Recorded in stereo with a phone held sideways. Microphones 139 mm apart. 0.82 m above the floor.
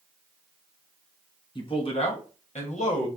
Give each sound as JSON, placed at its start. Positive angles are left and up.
{"t": 1.6, "sound": "a man speaking", "side_deg": 35, "distance_m": 1.1}